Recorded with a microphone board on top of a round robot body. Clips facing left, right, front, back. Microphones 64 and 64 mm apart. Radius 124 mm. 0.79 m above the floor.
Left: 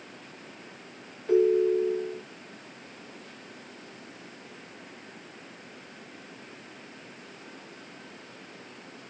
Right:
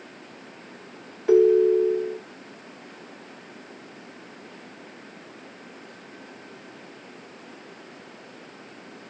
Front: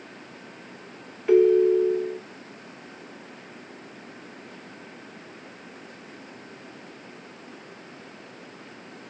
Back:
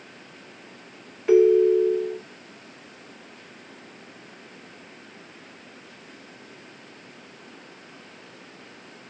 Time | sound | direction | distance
1.3 | a ringtone | 95° right | 0.6 m